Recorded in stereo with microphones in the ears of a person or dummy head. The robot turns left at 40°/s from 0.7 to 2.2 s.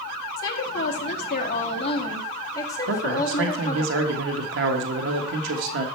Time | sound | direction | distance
0.4 | a woman speaking | 75° left | 2 m
2.9 | a man speaking | 65° right (ahead or behind) | 1.5 m